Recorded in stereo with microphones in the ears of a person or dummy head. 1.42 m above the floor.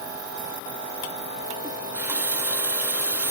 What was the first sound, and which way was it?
A running tap, 15° right (ahead or behind).